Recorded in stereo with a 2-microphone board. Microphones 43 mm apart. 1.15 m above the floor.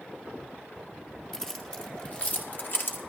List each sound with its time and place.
1.3 s keys jangling: 10° left (ahead or behind), 1.7 m; by 3.0 s 55° left (ahead or behind), 1.7 m